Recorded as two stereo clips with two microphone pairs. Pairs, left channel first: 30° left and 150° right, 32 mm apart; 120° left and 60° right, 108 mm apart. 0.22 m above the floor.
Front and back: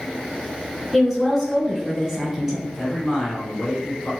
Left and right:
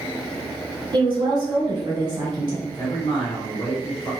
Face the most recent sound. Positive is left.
turn(degrees=105)